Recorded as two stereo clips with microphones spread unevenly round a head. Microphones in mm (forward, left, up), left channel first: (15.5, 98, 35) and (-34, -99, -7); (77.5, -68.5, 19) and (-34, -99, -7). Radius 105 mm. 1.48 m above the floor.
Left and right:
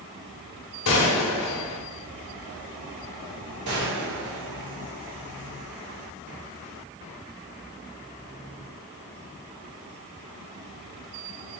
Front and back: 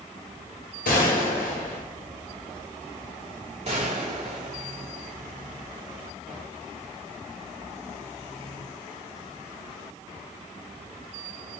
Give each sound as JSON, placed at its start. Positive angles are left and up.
{"t": 0.8, "sound": "a gunshot", "azimuth_deg": 45, "distance_m": 1.3}
{"t": 3.6, "sound": "a gunshot", "azimuth_deg": -135, "distance_m": 2.5}